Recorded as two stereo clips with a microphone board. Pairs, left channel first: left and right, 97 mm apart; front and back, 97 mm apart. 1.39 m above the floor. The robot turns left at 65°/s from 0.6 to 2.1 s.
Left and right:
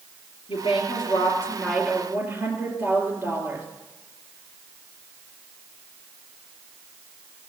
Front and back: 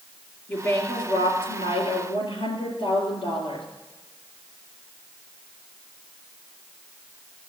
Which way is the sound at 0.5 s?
70° left.